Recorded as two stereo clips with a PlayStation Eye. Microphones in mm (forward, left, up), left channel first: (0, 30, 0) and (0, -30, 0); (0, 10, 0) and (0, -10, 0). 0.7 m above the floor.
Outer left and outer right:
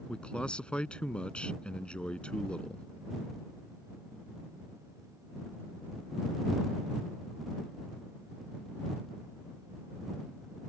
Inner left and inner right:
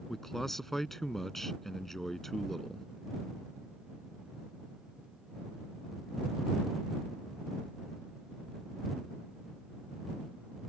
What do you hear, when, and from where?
0.1 s a man speaking: 15° left (ahead or behind)